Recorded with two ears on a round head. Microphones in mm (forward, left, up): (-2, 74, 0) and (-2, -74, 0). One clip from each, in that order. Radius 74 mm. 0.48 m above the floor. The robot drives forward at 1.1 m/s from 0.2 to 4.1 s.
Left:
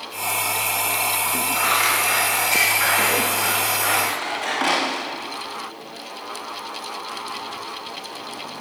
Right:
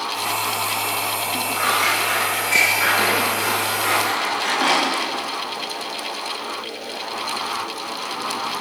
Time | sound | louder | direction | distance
1.5 | scissors | right 1 dB | 15° left (ahead or behind) | 10 m